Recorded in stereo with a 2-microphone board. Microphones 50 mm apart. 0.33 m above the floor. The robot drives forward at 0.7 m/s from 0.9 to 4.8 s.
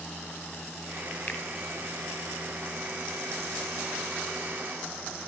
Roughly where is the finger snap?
Left.